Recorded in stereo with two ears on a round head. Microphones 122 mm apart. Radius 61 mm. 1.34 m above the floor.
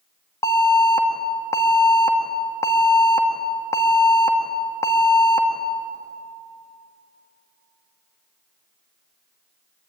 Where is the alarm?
25° left (ahead or behind), 1.9 m.